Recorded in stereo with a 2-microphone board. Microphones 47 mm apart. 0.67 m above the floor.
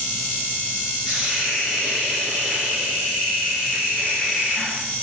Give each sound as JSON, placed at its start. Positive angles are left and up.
{"t": 1.1, "sound": "a hiss", "side_deg": -25, "distance_m": 1.3}